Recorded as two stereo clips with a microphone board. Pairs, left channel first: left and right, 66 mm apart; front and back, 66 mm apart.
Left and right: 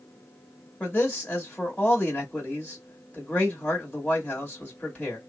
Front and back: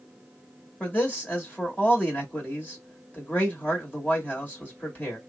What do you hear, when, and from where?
0.8 s a man speaking: 45° left, 1.5 m